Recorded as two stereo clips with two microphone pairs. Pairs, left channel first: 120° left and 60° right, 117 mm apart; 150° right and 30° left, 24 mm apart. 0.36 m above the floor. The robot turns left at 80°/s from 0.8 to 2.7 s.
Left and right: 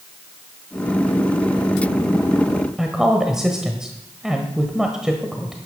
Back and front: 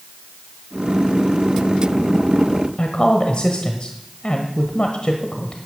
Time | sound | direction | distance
2.8 | a woman speaking | 145° right | 1.3 m